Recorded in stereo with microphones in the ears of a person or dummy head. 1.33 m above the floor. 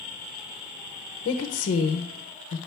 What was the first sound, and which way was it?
A woman speaking, 30° left (ahead or behind).